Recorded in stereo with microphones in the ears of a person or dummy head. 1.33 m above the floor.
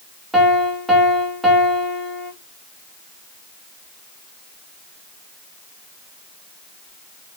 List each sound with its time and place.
0.3 s a piano: 5° right (ahead or behind), 0.8 m